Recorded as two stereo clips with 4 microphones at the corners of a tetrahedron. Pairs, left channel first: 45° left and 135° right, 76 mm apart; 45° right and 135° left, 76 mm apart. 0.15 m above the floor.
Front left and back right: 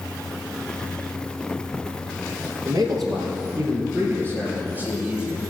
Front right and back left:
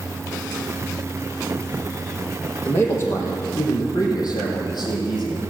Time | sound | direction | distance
2.6 | a man speaking | 110° right | 3.5 m